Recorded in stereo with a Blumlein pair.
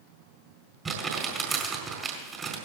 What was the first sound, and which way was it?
Crumpling, 20° right.